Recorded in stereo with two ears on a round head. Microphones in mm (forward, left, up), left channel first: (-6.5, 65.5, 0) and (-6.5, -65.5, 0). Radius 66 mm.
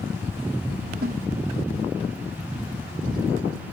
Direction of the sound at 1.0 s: 70° right (ahead or behind).